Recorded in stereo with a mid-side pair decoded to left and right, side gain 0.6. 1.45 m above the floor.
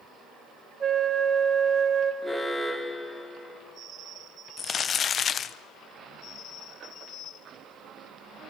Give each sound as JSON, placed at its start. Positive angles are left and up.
{"t": 0.8, "sound": "a flute", "azimuth_deg": -30, "distance_m": 2.0}
{"t": 2.2, "sound": "an alarm", "azimuth_deg": 0, "distance_m": 2.5}
{"t": 4.6, "sound": "crumpling", "azimuth_deg": 35, "distance_m": 1.0}